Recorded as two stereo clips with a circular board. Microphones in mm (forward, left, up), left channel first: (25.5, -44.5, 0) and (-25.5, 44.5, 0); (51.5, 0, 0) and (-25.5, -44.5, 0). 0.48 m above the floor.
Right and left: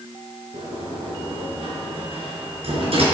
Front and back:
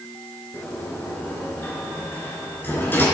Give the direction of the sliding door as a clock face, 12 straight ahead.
9 o'clock.